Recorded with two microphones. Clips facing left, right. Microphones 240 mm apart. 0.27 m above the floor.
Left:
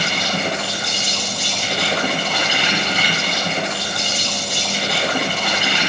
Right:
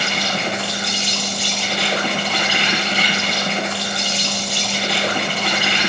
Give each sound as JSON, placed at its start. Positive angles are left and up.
{"t": 0.0, "sound": "an insect", "side_deg": 40, "distance_m": 10.0}